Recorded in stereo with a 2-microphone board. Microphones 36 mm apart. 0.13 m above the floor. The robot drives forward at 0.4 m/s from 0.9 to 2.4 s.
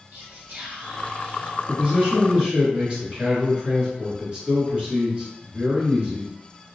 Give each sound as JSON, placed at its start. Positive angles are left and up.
{"t": 0.1, "sound": "whispering", "side_deg": -40, "distance_m": 1.8}
{"t": 1.7, "sound": "a man speaking", "side_deg": -30, "distance_m": 1.5}